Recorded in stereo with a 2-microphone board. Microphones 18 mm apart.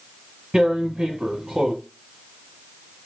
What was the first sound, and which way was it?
Tearing paper, 50° right (ahead or behind).